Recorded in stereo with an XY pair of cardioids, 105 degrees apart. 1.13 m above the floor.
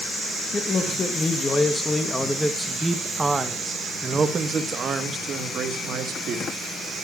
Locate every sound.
0.5 s a man speaking: 40° left, 2 m; by 6.5 s 65° right, 3 m